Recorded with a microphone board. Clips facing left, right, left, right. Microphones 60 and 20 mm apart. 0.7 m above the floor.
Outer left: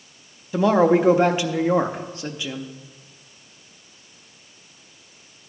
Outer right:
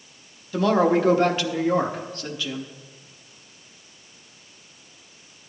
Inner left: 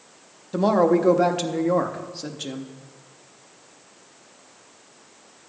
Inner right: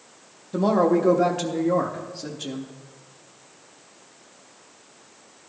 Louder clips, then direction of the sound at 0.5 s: Outer left 3 dB, inner left 1 dB; 15° left (ahead or behind).